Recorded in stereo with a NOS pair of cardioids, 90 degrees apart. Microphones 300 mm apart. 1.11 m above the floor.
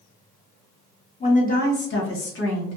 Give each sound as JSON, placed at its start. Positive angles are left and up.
{"t": 1.2, "sound": "a woman speaking", "azimuth_deg": 20, "distance_m": 1.4}